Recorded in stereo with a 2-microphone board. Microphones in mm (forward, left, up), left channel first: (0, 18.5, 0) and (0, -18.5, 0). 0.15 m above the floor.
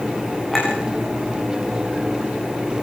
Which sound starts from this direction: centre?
A clink, at 0.5 s.